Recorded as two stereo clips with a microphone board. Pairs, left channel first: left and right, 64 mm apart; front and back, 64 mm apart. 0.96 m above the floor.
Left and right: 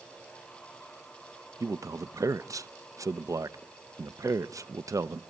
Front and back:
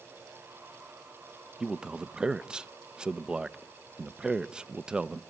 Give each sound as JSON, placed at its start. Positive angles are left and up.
{"t": 1.6, "sound": "a man speaking", "azimuth_deg": -105, "distance_m": 0.6}